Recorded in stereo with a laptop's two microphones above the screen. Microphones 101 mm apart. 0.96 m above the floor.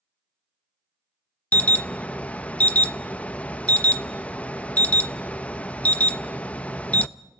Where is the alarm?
15° left (ahead or behind), 0.7 m.